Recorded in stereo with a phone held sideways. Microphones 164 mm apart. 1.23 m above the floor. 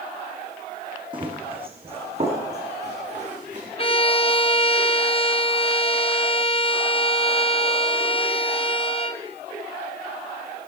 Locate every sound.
1.1 s running footsteps: 30° right (ahead or behind), 3 m; by 3.7 s 45° right (ahead or behind), 4.5 m
3.8 s a violin: 35° left (ahead or behind), 0.7 m